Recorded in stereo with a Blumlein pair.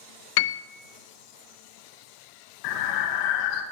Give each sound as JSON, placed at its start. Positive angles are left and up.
{"t": 0.4, "sound": "a piano", "azimuth_deg": 50, "distance_m": 0.5}
{"t": 2.6, "sound": "breathing", "azimuth_deg": 45, "distance_m": 1.2}